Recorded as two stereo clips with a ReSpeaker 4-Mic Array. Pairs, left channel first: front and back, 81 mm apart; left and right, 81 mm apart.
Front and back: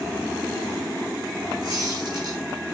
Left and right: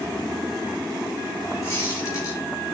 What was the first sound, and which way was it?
A squeak, 145° left.